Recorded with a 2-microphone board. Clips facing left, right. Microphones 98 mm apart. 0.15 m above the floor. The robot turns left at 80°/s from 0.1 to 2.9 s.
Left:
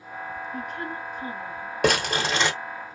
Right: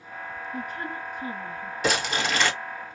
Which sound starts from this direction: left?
Crumpling, at 1.8 s.